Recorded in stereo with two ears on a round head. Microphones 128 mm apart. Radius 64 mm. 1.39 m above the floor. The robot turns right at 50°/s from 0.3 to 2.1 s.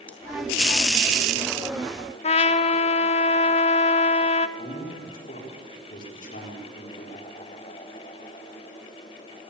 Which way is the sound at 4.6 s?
65° left (ahead or behind).